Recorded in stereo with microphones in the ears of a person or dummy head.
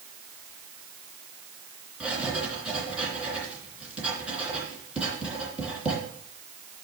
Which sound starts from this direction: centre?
Writing, at 2.0 s.